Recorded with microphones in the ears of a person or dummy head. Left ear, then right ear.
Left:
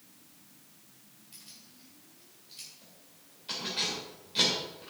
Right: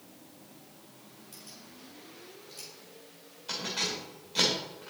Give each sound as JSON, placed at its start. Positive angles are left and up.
{"t": 1.3, "sound": "keys jangling", "side_deg": -25, "distance_m": 3.5}